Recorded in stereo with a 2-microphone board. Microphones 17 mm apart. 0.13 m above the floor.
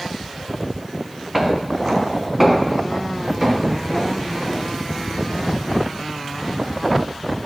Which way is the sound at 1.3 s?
20° right (ahead or behind).